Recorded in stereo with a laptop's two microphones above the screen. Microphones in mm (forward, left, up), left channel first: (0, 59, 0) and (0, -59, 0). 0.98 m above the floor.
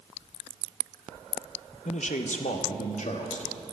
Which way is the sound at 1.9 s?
65° left (ahead or behind).